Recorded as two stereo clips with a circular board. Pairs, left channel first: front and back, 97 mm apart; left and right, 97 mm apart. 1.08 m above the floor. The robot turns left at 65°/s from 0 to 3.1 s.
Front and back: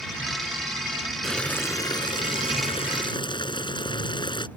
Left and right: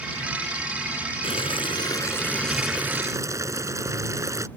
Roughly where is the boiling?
Left.